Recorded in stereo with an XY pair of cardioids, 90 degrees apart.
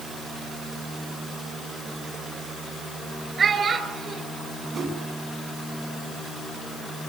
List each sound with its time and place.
3.4 s a child speaking: 50° right, 4 m
4.7 s a whoosh: 55° right, 3 m